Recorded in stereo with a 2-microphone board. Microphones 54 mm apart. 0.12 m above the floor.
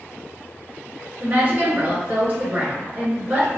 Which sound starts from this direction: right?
A woman speaking, at 1.2 s.